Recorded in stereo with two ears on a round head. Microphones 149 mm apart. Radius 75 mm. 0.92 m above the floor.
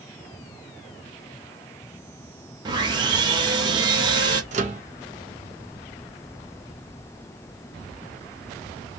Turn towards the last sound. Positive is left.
turn(degrees=-45)  # may be behind; listen again after turning